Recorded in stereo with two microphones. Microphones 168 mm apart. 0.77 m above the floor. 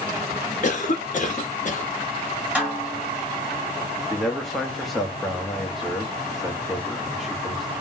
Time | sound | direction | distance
0.6 | a cough | 50° left (ahead or behind) | 1.1 m
2.5 | a snare drum | 10° right (ahead or behind) | 2 m
4.1 | a man speaking | centre (ahead or behind) | 0.9 m